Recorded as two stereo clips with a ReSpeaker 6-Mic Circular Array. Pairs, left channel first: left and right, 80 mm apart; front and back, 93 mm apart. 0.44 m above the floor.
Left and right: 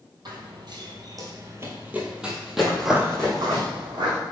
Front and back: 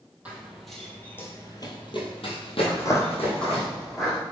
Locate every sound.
0.2 s running footsteps: 105° right, 0.9 m; by 3.7 s 10° left, 1.6 m
2.7 s footsteps: 35° left, 0.5 m; by 4.2 s 90° right, 1.6 m